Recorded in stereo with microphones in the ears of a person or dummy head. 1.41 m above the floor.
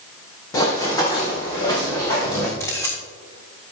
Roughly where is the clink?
No clink in this recording.